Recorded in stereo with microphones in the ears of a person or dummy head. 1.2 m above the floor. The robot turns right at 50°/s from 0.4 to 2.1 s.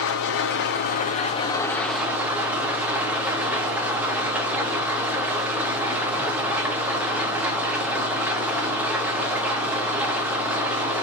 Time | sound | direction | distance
0.0 | an engine running | 100° left | 0.9 m